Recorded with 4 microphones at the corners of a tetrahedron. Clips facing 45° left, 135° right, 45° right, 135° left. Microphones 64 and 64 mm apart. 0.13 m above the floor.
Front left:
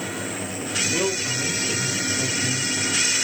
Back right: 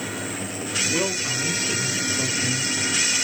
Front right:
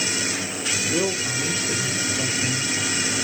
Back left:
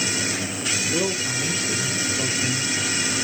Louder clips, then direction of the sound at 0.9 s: Front left 1 dB, front right 2 dB; 85° right.